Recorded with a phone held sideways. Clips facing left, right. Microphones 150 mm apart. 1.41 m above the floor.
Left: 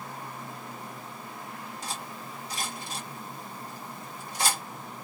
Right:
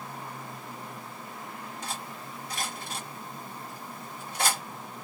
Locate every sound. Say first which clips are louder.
1.8 s cutlery clinking: even; 55° right (ahead or behind), 1.1 m